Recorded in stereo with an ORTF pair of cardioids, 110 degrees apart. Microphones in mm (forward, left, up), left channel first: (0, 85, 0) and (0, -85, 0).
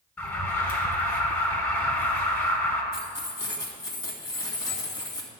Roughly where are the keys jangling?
Ahead.